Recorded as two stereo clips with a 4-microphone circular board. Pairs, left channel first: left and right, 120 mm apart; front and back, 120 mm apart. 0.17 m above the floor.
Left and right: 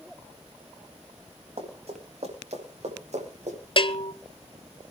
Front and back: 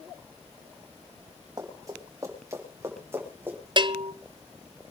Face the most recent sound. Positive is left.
turn(degrees=130)